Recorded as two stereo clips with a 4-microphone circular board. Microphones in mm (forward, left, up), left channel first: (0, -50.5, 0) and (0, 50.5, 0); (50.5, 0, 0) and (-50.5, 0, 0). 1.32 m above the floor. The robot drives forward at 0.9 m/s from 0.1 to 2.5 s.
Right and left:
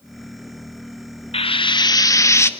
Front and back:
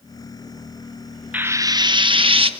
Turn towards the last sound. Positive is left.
turn(degrees=-155)